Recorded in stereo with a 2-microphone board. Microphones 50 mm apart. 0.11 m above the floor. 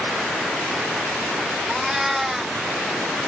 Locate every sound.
1.7 s a cat meowing: 5° right (ahead or behind)